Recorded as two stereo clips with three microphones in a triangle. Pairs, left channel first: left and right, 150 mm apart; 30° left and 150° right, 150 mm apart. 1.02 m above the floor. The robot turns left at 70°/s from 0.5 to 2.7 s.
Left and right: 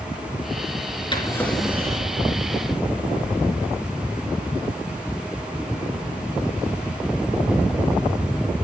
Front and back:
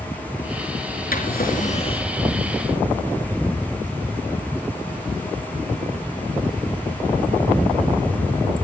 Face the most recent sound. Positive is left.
turn(degrees=-75)